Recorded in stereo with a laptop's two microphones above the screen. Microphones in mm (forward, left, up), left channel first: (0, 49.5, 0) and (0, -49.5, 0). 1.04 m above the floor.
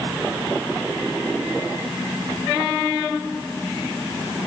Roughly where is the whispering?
I don't hear whispering.